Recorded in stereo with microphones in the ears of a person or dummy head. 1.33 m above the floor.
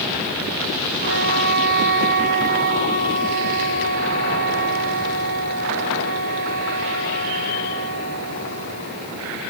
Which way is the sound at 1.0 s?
45° right (ahead or behind).